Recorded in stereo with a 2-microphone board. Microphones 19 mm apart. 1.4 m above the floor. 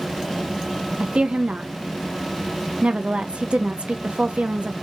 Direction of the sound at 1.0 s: 75° right (ahead or behind).